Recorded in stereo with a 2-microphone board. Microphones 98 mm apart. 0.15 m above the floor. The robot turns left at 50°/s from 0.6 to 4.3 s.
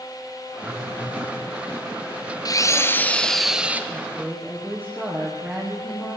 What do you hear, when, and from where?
0.6 s a phone buzzing: 150° left, 7 m; by 1.4 s 110° left, 7 m
2.5 s a drill: 50° left, 2.5 m; by 3.8 s 20° right, 2.5 m
3.9 s a woman speaking: 25° right (ahead or behind), 8.5 m; by 6.2 s 5° right (ahead or behind), 8.5 m